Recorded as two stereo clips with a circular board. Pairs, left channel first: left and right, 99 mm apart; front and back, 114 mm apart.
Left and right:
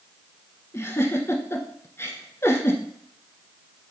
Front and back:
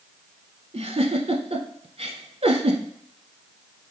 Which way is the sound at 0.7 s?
150° left.